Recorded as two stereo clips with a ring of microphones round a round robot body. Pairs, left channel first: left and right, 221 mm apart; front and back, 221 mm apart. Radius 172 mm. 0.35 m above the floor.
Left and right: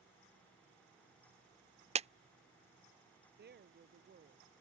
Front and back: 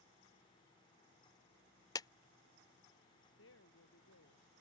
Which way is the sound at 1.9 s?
60° right.